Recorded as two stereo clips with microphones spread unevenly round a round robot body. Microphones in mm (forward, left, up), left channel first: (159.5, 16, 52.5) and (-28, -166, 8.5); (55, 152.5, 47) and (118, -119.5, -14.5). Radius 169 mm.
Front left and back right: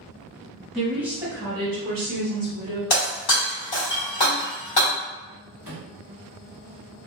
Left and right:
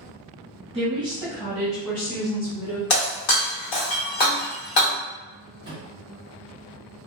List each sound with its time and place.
0.7 s a woman speaking: 65° right, 0.9 m; by 2.8 s straight behind, 1.1 m
2.9 s breaking glass: 90° left, 1.1 m
5.6 s a microwave: 85° right, 1.0 m